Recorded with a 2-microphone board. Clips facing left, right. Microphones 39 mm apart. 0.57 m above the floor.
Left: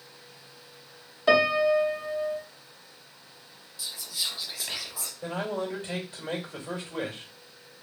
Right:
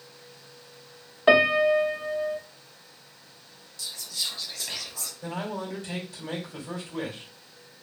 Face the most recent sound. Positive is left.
turn(degrees=35)  # may be behind; listen again after turning